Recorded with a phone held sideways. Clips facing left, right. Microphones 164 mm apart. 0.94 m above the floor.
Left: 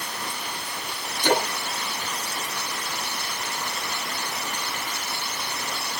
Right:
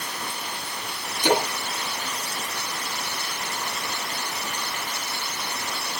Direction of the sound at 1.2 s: 10° right (ahead or behind).